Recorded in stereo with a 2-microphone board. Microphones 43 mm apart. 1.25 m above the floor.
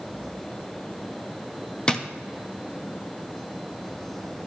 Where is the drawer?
25° left (ahead or behind), 0.7 m.